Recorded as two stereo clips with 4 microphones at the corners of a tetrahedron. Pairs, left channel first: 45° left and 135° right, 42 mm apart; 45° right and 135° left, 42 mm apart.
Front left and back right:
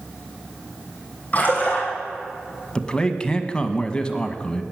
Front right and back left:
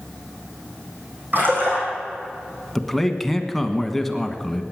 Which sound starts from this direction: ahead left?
A man speaking, at 2.8 s.